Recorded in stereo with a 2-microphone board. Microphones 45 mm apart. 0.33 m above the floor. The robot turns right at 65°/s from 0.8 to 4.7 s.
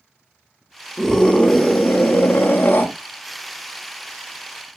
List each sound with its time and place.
1.0 s a scream: 5° right, 1.1 m; by 2.9 s 120° left, 1.1 m